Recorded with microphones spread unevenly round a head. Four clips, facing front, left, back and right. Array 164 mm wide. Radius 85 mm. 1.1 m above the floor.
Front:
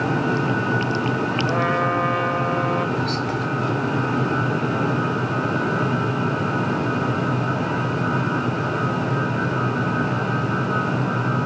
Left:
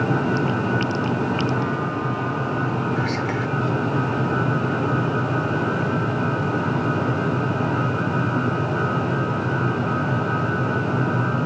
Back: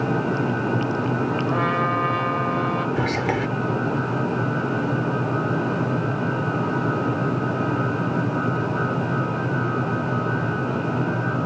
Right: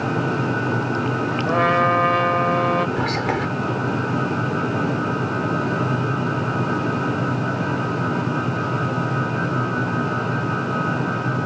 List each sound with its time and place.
1.5 s a trumpet: 80° right
3.0 s whispering: 150° right